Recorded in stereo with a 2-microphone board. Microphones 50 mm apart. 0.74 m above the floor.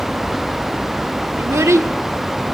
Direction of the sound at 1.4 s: 75° right (ahead or behind).